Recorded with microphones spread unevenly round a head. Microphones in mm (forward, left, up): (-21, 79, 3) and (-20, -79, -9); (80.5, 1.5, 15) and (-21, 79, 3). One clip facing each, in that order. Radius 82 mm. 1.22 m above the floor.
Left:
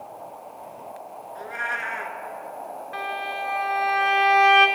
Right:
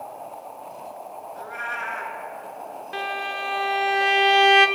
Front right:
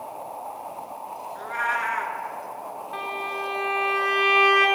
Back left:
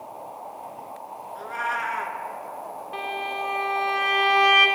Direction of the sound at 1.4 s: 55° left.